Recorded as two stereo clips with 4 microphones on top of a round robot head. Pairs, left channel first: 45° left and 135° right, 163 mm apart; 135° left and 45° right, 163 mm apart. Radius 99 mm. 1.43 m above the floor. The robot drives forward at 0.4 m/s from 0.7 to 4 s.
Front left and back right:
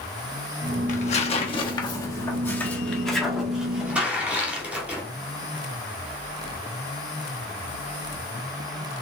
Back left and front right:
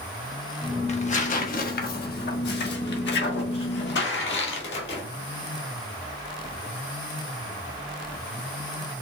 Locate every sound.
0.9 s tearing paper: 85° left, 1.0 m; by 5.0 s 140° left, 1.6 m